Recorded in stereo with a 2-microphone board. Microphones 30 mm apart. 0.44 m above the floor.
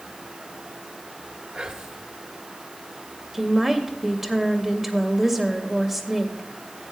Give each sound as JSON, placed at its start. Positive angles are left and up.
{"t": 1.5, "sound": "whispering", "side_deg": -40, "distance_m": 1.0}
{"t": 3.3, "sound": "a woman speaking", "side_deg": -10, "distance_m": 2.0}